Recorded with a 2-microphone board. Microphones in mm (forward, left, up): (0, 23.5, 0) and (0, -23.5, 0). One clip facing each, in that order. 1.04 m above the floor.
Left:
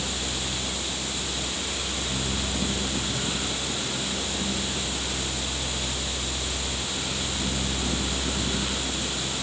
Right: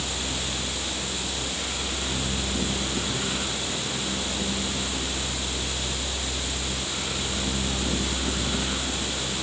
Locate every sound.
Only background noise.